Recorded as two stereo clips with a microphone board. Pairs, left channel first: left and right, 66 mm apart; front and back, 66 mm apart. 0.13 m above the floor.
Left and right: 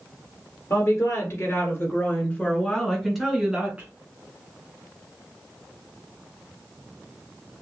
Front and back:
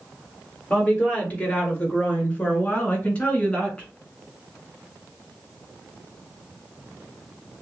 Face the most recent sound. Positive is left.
turn(degrees=-55)